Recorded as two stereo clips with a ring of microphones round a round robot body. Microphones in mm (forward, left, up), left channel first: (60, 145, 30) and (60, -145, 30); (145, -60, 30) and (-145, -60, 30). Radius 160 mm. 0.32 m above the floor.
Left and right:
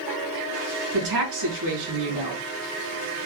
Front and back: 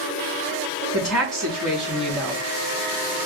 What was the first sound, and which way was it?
A woman speaking, 90° right.